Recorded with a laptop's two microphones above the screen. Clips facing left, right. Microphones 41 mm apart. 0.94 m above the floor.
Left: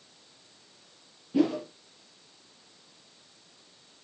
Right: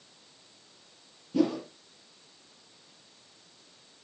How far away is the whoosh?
About 3.5 m.